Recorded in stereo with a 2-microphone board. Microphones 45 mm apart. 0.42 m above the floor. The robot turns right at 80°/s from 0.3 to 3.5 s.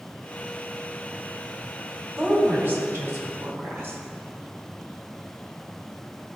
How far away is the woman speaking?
About 2.5 m.